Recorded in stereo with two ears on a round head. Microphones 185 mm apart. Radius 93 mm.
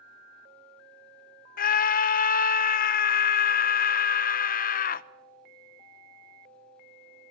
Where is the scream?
45° left (ahead or behind), 0.9 m.